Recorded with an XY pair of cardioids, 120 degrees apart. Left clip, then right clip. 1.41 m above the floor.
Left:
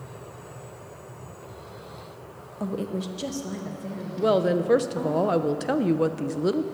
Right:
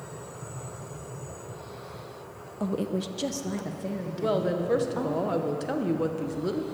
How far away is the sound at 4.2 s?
About 0.8 m.